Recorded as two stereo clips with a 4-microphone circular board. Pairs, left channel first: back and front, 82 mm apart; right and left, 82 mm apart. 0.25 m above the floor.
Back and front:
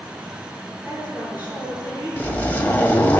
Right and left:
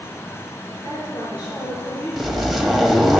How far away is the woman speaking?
About 5 m.